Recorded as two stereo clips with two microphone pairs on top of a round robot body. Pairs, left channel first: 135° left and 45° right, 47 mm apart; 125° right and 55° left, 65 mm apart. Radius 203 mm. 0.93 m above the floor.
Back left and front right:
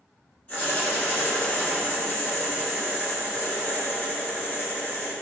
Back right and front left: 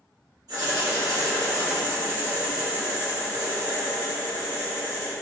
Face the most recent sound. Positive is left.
turn(degrees=85)